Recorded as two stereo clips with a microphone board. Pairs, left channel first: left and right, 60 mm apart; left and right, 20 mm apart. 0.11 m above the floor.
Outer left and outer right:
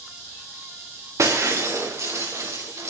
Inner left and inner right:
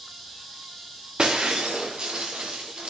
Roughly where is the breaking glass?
Right.